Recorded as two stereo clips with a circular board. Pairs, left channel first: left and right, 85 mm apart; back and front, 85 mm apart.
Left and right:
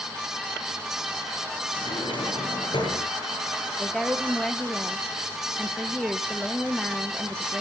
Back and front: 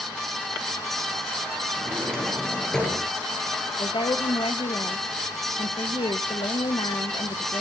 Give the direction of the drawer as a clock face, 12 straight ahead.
9 o'clock.